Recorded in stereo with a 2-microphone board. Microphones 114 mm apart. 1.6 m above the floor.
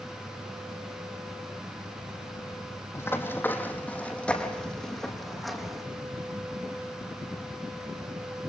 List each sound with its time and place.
3.0 s running footsteps: 20° left (ahead or behind), 3.5 m; by 5.8 s 5° right (ahead or behind), 4 m